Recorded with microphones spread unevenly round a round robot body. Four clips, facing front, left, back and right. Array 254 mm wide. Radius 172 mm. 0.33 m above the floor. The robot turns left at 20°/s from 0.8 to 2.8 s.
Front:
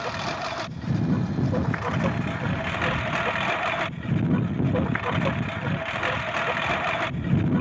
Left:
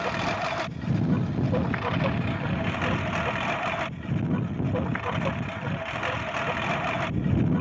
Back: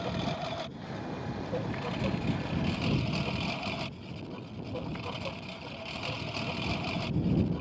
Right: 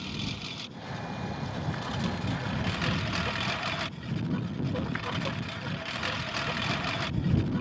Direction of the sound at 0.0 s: 45° left.